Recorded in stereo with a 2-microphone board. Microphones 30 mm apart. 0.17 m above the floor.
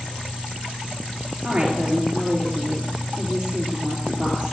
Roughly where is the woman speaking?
Right.